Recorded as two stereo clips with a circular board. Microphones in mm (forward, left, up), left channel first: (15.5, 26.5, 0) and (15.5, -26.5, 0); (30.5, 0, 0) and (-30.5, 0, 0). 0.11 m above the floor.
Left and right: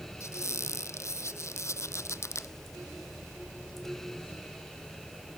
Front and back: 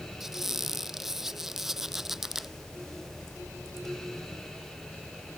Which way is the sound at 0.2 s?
95° left.